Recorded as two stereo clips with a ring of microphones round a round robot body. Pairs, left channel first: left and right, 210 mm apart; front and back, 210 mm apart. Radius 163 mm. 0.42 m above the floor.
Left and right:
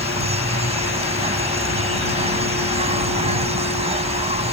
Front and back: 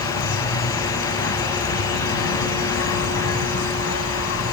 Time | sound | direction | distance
0.0 | an insect | 30° right | ?